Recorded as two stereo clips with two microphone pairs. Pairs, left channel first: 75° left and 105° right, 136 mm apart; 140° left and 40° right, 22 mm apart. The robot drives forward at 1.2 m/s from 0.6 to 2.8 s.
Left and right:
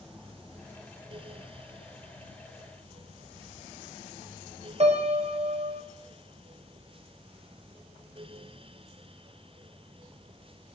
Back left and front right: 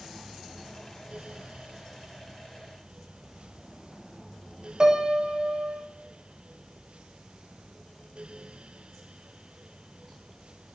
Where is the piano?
85° right, 0.6 m.